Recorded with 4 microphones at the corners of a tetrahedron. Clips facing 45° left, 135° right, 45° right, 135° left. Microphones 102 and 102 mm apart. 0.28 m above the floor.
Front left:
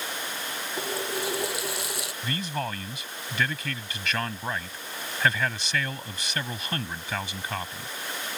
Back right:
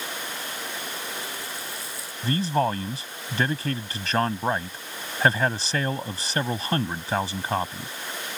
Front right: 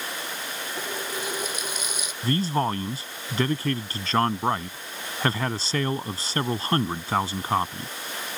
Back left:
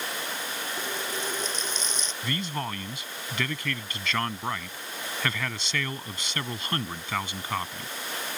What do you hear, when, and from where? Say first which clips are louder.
0.8 s a running tap: front left 4 dB, front right 2 dB; 35° left
2.2 s a man speaking: back right 9 dB, front right 9 dB; 90° right